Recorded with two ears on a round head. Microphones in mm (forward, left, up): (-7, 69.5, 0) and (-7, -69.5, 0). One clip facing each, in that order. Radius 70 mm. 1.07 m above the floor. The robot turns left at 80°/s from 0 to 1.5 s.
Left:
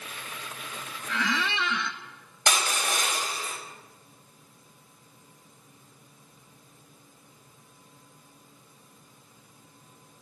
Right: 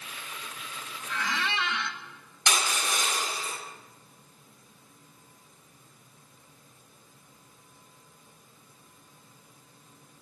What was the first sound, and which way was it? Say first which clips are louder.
A squeak: left 3 dB; 130° left.